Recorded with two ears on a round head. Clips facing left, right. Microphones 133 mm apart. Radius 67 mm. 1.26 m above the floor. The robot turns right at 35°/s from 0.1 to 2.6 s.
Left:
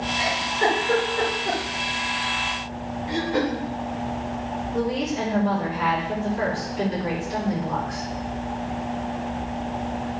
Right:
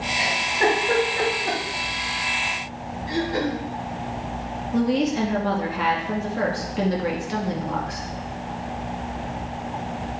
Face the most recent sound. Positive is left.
turn(degrees=-70)  # may be behind; listen again after turning